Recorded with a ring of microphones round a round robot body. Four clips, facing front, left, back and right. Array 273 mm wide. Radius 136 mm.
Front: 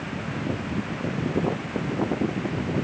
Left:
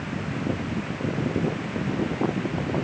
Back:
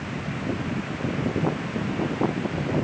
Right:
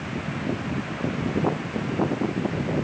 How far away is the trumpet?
No trumpet in this recording.